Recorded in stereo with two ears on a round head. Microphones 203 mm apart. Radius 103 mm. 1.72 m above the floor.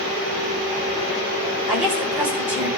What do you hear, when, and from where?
1.7 s a woman speaking: 5° right (ahead or behind), 7 m